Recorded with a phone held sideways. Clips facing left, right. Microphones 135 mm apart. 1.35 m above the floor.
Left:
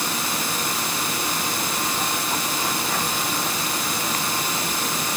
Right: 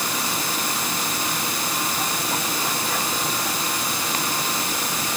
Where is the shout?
I don't hear a shout.